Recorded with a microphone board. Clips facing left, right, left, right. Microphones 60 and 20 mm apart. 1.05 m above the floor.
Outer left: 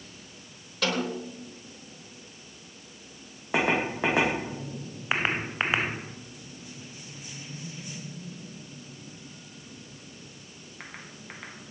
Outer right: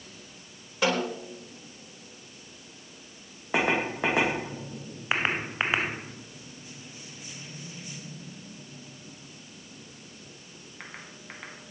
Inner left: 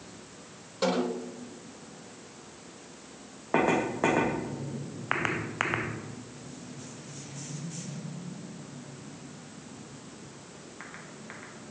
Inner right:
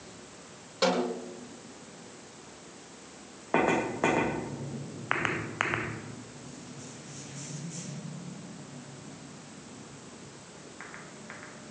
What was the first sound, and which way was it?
A snare drum, 20° right (ahead or behind).